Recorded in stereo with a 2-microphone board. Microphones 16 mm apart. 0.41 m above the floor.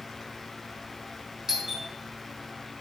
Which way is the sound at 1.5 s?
25° right (ahead or behind).